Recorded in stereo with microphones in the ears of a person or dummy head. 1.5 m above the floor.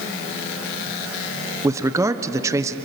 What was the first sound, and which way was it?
A man speaking, 20° right (ahead or behind).